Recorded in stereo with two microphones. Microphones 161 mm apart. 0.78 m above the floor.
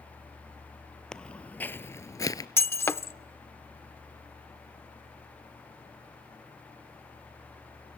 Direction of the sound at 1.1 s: 5° left (ahead or behind).